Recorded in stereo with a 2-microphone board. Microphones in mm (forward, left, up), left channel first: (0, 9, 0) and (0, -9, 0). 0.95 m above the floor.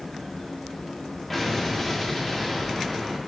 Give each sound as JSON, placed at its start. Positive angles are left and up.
{"t": 1.3, "sound": "an explosion", "side_deg": 15, "distance_m": 1.0}